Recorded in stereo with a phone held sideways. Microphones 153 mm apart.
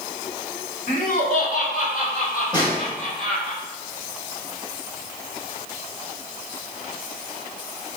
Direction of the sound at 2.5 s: 25° left (ahead or behind).